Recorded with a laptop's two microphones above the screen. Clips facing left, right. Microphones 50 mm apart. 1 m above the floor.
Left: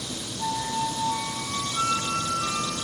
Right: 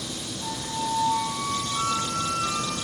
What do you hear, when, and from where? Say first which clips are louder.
0.4 s a flute: left 4 dB; 40° left (ahead or behind), 1.1 m